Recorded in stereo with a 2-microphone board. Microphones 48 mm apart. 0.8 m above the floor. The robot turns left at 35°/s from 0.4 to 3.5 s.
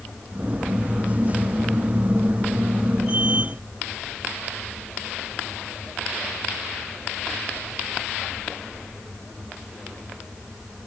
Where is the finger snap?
I don't hear a finger snap.